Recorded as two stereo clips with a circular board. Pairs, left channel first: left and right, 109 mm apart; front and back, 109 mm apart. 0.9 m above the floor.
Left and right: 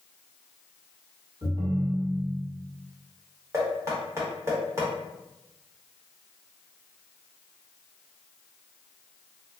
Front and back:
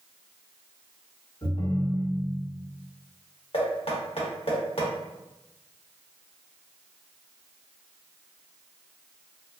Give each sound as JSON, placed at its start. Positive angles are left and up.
{"t": 1.4, "sound": "a ringtone", "azimuth_deg": -45, "distance_m": 1.0}
{"t": 3.5, "sound": "knocking", "azimuth_deg": -25, "distance_m": 0.9}